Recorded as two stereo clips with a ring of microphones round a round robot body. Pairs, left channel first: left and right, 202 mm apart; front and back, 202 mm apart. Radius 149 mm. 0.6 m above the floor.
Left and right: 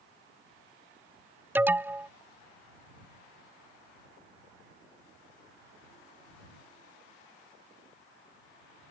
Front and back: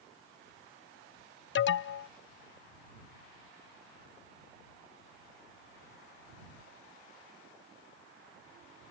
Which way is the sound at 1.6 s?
10° right.